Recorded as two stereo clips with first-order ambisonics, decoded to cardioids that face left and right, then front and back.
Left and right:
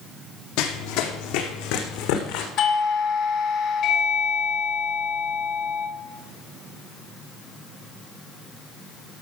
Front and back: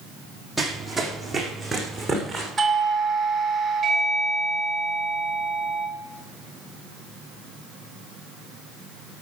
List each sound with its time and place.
0.6 s running footsteps: 90° left, 1.9 m
2.6 s a doorbell: 110° left, 2 m